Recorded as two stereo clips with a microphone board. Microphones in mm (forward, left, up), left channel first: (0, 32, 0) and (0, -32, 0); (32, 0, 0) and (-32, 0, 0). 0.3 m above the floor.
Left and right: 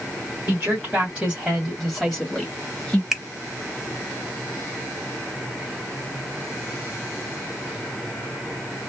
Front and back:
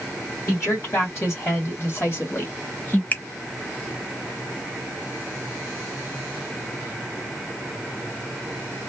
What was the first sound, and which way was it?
A woman speaking, 30° right.